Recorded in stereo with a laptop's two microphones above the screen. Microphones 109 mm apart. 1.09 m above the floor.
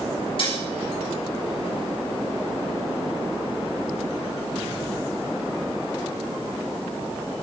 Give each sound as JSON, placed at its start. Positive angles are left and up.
{"t": 0.4, "sound": "dishes clattering", "side_deg": 50, "distance_m": 6.5}